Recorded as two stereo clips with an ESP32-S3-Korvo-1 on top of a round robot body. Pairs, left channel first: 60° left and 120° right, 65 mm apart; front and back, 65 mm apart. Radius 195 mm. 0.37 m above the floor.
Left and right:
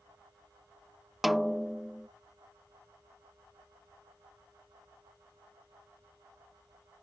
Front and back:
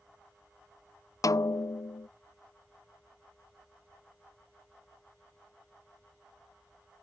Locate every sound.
1.2 s a snare drum: 30° right